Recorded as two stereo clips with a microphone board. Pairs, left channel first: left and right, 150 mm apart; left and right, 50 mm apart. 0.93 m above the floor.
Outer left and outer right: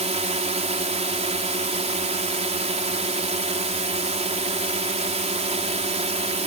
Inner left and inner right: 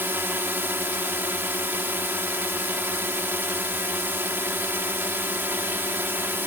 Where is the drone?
50° right (ahead or behind).